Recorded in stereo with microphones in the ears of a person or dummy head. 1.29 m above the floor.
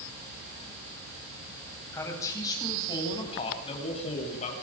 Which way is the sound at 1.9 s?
20° left (ahead or behind).